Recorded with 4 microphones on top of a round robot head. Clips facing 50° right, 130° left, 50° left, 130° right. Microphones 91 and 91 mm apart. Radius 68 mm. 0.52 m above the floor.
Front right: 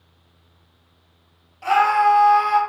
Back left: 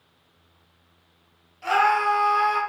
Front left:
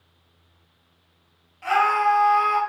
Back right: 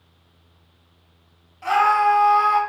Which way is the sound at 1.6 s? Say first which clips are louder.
Front right 4 dB, back right 3 dB; 70° right.